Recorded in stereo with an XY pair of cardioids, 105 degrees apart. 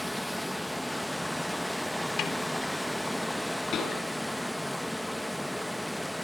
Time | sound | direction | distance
0.0 | running water | 5° left | 0.9 m
2.2 | a snare drum | 65° left | 3.5 m
3.7 | a pop | 65° left | 7 m